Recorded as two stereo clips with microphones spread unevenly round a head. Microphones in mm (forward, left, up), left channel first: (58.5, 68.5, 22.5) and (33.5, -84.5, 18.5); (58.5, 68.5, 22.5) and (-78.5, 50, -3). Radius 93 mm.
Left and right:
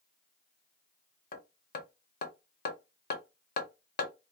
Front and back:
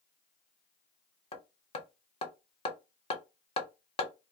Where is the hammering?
55° left, 0.9 m.